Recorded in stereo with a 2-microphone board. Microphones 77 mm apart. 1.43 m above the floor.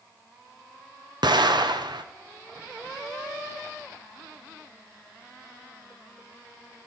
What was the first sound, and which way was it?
An explosion, 80° right.